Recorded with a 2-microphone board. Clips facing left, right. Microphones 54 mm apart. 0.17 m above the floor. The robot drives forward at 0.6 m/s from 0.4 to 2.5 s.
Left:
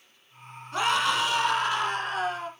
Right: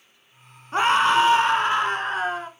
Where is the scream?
35° right (ahead or behind), 1.8 m; by 2.5 s 25° right (ahead or behind), 2.5 m.